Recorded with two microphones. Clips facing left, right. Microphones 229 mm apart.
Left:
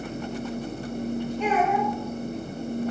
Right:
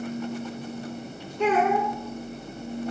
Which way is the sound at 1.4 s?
70° right (ahead or behind).